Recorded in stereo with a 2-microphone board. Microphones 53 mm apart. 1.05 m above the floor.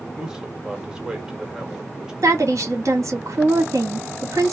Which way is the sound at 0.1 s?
10° right (ahead or behind).